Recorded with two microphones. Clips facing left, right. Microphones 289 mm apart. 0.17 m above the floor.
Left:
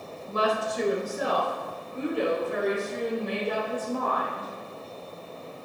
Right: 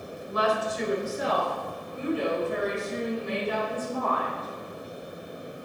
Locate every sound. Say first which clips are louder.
0.3 s a woman speaking: even; 35° left (ahead or behind), 1.3 m; by 4.5 s 70° left (ahead or behind), 5 m